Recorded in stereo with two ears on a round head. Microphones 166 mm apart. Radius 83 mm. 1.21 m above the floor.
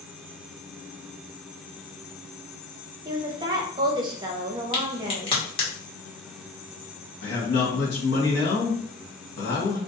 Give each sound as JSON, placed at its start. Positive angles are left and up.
{"t": 3.0, "sound": "a woman speaking", "side_deg": -25, "distance_m": 0.9}
{"t": 4.7, "sound": "a crack", "side_deg": 30, "distance_m": 1.3}
{"t": 7.2, "sound": "a man speaking", "side_deg": 60, "distance_m": 1.5}